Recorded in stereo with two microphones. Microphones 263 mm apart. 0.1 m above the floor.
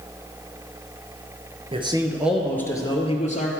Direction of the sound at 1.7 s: 25° right (ahead or behind).